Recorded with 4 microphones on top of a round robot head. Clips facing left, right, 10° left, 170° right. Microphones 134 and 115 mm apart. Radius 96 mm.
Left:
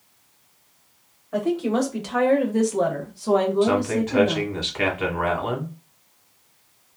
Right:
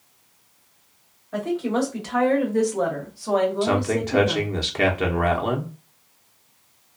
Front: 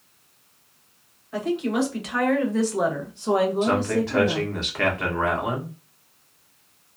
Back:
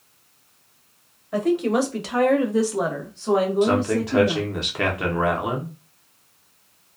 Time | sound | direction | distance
1.3 | a woman speaking | 165° left | 1.2 m
3.6 | a man speaking | 105° right | 0.7 m